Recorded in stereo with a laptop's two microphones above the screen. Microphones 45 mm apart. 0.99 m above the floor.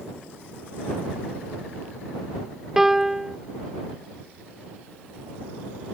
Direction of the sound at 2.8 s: 10° right (ahead or behind).